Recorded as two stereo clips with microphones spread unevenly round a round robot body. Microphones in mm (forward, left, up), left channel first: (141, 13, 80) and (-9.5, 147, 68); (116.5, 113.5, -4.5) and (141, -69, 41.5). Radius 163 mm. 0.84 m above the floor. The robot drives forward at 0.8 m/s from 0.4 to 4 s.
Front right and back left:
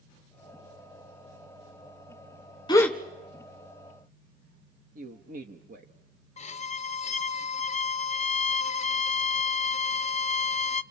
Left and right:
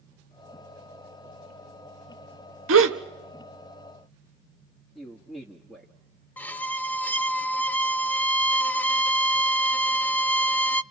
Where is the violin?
10° left, 0.6 m.